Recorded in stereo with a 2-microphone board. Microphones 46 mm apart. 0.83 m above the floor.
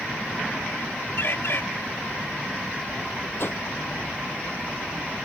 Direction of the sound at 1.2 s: 60° left (ahead or behind).